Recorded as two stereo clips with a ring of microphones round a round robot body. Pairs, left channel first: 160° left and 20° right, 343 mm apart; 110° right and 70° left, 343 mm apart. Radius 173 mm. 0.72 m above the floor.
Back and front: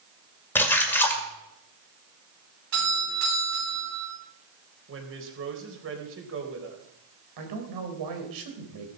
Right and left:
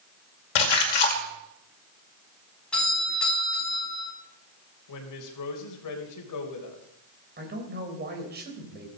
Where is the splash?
120° right, 2 m.